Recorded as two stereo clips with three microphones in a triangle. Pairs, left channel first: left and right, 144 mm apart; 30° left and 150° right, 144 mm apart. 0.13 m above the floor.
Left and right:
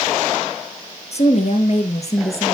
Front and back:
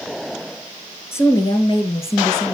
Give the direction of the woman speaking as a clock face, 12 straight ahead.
9 o'clock.